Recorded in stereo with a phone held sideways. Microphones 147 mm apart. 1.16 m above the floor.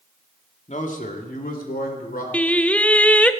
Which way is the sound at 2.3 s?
10° left (ahead or behind).